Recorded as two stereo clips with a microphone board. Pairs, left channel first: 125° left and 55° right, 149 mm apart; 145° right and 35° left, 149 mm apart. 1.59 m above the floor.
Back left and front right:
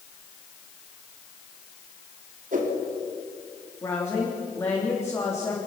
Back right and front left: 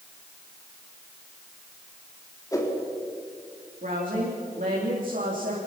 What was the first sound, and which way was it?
A whoosh, 75° right.